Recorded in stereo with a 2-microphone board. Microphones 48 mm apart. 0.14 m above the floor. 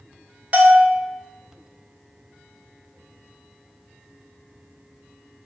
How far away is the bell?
About 0.6 m.